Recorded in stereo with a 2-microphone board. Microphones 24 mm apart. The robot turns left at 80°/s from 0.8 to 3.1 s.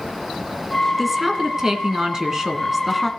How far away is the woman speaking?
About 1.7 m.